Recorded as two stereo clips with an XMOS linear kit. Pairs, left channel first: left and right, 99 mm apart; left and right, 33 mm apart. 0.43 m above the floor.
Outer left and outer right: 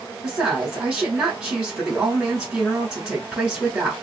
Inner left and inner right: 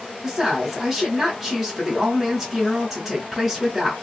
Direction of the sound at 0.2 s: 10° right (ahead or behind).